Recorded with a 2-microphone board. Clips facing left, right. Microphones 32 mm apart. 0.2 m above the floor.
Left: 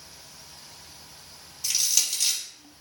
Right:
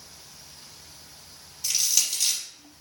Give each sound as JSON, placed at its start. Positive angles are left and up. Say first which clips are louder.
{"t": 1.6, "sound": "crushing", "louder": "even", "side_deg": 0, "distance_m": 4.5}